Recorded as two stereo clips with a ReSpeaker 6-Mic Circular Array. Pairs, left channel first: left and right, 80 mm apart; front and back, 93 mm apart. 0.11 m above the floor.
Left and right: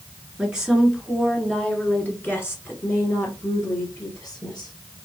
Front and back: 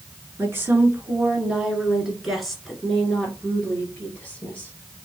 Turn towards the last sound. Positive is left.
turn(degrees=70)